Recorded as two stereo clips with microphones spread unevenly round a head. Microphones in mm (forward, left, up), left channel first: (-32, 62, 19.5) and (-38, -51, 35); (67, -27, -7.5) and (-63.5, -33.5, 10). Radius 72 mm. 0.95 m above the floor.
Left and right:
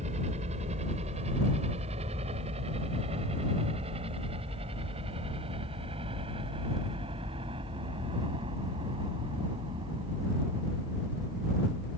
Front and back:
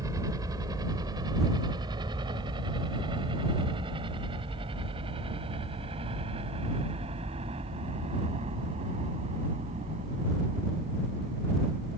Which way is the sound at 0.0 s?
115° right.